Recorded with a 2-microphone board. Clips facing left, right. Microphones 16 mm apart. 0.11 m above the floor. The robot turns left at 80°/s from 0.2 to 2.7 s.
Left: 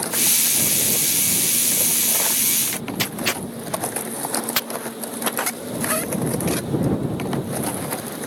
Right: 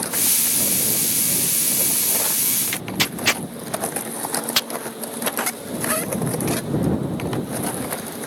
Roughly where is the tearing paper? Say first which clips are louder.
Right 2 dB; centre.